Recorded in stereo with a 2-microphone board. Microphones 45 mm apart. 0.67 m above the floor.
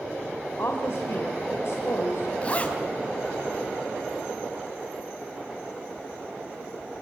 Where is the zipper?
30° left (ahead or behind), 3 m.